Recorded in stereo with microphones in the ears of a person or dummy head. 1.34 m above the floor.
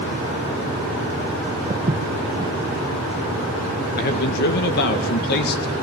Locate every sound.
1.7 s footsteps: 20° right (ahead or behind), 2.5 m
4.0 s a man speaking: 55° left (ahead or behind), 1.6 m